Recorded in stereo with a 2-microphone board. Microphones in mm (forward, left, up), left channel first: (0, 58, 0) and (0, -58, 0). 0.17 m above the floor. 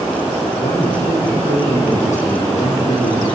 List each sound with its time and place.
0.6 s a man speaking: 80° left, 8.5 m